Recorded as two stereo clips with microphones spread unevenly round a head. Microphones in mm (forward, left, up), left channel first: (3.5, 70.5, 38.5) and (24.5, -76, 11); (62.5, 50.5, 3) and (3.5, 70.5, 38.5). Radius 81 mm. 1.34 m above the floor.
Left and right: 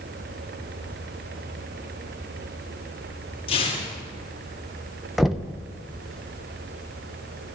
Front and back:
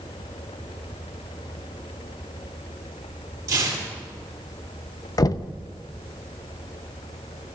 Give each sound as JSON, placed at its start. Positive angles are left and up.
{"t": 3.5, "sound": "tearing paper", "azimuth_deg": 155, "distance_m": 8.0}
{"t": 5.2, "sound": "knocking", "azimuth_deg": 10, "distance_m": 0.8}